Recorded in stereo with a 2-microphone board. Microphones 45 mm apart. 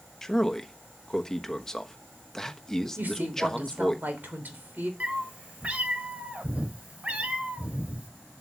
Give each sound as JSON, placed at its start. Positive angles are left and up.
{"t": 0.2, "sound": "a man speaking", "side_deg": 10, "distance_m": 1.2}
{"t": 3.0, "sound": "a woman speaking", "side_deg": -40, "distance_m": 3.0}
{"t": 5.0, "sound": "a cat meowing", "side_deg": -30, "distance_m": 1.8}